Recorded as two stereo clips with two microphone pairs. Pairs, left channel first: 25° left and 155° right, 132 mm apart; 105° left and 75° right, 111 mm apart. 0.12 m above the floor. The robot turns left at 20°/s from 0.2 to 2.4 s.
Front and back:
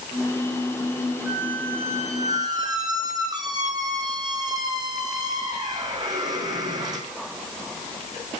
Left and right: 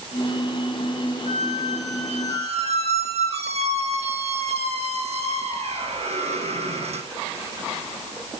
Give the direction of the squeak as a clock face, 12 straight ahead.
2 o'clock.